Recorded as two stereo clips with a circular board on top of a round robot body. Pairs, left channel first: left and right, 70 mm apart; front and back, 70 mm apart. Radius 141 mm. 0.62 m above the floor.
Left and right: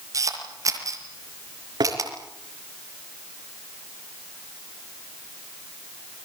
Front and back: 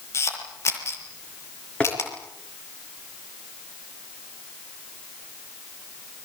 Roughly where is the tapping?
Right.